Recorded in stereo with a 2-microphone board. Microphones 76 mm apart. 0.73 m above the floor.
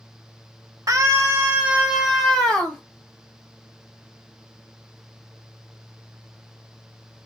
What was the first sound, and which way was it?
A scream, 45° right (ahead or behind).